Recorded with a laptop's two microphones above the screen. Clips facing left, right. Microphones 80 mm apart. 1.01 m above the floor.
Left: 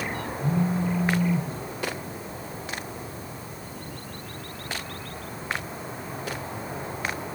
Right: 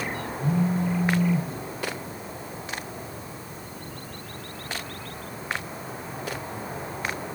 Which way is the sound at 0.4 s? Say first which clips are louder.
Right 1 dB; 40° right (ahead or behind).